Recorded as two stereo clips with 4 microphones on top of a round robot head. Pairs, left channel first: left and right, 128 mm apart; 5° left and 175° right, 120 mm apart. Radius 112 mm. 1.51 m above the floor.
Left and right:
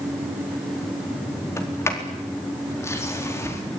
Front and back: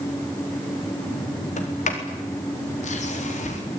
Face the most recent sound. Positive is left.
turn(degrees=20)